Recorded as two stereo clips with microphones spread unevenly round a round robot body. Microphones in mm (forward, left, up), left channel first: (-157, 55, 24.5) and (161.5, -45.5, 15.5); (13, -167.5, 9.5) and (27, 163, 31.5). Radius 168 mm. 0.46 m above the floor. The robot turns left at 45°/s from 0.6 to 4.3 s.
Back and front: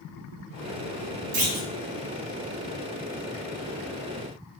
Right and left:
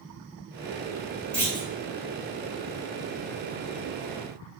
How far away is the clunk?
About 1.0 m.